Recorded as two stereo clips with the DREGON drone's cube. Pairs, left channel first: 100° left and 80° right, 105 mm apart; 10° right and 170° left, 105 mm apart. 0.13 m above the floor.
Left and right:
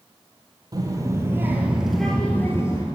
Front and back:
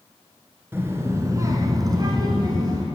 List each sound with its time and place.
0.7 s a child speaking: 125° right, 1.6 m; by 2.8 s 135° left, 1.2 m